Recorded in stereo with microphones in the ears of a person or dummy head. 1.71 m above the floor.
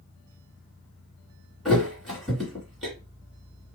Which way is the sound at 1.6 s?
Centre (ahead or behind).